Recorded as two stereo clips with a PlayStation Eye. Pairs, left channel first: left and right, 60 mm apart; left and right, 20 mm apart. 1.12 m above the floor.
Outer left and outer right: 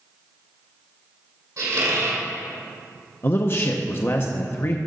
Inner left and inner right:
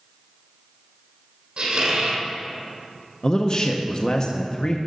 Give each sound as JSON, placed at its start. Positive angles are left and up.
{"t": 1.6, "sound": "a squeak", "side_deg": -65, "distance_m": 2.5}
{"t": 3.2, "sound": "a man speaking", "side_deg": 40, "distance_m": 0.6}